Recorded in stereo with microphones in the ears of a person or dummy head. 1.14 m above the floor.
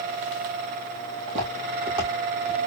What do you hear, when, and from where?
1.3 s footsteps: 35° right (ahead or behind), 2.5 m; by 2.6 s 20° right (ahead or behind), 3 m